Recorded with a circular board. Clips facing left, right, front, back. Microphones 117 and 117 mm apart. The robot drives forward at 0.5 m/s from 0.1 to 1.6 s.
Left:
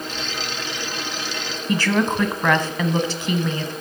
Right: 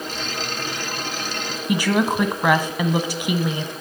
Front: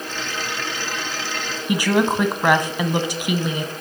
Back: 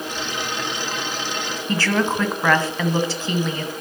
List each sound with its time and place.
1.7 s a woman speaking: 45° right, 1.0 m